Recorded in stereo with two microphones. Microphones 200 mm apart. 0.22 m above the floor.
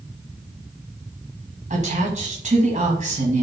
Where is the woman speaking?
40° right (ahead or behind), 1.6 m.